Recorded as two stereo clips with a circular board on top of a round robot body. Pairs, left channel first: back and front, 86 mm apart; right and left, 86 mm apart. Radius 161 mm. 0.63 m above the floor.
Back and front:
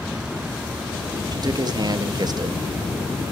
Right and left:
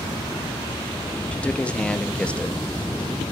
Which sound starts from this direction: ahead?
A man speaking, at 1.3 s.